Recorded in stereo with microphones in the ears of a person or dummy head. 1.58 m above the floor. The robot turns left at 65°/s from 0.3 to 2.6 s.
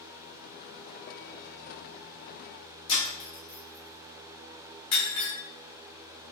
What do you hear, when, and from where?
2.9 s breaking glass: 35° left (ahead or behind), 1.8 m